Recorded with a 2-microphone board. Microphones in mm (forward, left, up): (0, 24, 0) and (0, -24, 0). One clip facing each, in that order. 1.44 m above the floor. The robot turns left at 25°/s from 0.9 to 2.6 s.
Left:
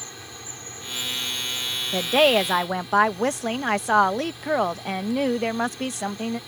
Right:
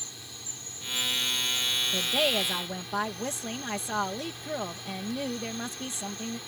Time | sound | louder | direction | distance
0.0 | an insect | left 6 dB | 45° left | ?
1.9 | a woman speaking | left 11 dB | 65° left (ahead or behind) | ?